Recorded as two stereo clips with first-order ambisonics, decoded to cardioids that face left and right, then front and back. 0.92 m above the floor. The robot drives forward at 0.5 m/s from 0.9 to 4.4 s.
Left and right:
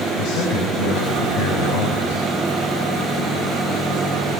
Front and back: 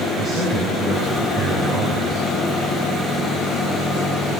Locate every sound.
0.2 s a man speaking: 90° left, 6 m; by 2.3 s 95° left, 6 m